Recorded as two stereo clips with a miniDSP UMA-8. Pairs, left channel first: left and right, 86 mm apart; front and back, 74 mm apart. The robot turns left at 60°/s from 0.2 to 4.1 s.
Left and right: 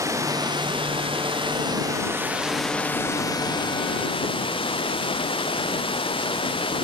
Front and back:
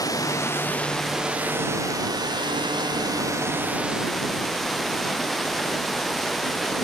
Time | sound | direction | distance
0.0 | running water | 35° right | ?